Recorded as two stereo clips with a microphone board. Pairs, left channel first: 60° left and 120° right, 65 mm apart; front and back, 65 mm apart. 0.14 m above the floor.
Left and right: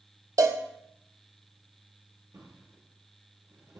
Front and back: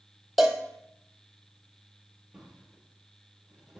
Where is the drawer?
100° right, 1.6 m.